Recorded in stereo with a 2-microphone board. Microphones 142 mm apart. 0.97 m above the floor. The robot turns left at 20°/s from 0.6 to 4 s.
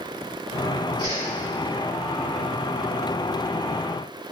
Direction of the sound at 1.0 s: 35° right (ahead or behind).